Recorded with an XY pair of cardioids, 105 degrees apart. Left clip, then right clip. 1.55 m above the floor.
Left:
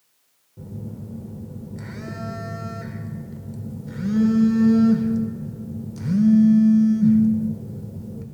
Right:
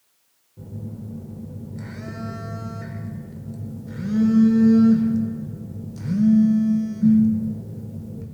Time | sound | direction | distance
0.6 | a phone buzzing | 15° left | 1.2 m